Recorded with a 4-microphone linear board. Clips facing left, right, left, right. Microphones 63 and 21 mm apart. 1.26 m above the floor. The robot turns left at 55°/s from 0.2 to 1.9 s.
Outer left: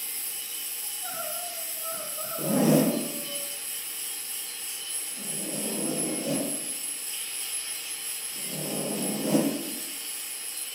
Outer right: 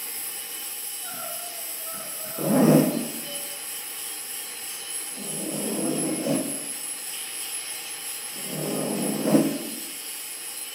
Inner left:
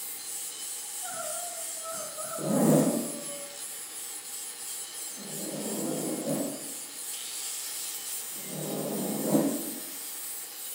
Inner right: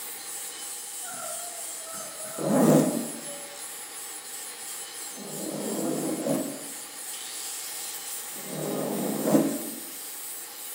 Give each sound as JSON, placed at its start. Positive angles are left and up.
{"t": 0.8, "sound": "crying", "azimuth_deg": -175, "distance_m": 3.5}
{"t": 2.4, "sound": "a zipper", "side_deg": -35, "distance_m": 1.1}